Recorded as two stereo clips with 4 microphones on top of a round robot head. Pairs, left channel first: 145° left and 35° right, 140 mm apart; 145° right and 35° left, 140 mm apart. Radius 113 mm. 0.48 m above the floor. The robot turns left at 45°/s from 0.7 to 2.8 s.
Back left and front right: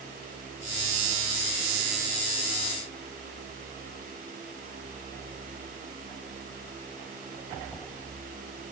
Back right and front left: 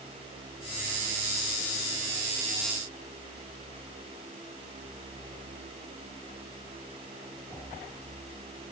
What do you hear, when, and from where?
Only background noise.